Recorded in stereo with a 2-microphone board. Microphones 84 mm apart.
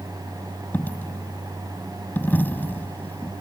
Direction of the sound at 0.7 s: 20° left (ahead or behind).